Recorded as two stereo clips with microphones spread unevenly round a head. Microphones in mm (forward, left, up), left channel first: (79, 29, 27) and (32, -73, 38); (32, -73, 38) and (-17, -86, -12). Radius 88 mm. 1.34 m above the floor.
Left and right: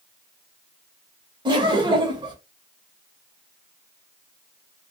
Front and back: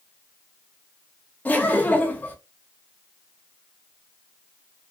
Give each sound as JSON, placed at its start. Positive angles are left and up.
{"t": 1.4, "sound": "laughter", "azimuth_deg": -70, "distance_m": 1.1}